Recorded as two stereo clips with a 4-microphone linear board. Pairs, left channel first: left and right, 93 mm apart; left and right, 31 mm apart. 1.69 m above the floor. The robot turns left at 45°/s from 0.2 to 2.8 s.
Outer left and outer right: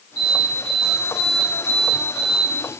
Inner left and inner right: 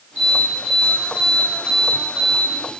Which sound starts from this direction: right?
An alarm, at 0.2 s.